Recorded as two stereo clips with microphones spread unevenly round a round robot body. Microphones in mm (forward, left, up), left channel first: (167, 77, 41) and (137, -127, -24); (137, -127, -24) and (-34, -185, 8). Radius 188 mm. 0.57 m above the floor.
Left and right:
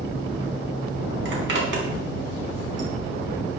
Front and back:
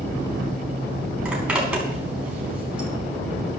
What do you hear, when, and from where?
1.2 s a zipper: 75° right, 5 m